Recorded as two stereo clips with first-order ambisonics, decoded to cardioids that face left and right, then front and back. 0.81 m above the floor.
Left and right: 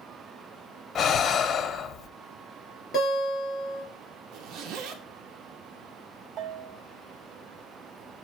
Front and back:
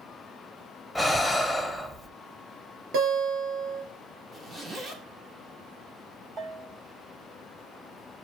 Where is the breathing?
90° left, 0.6 m.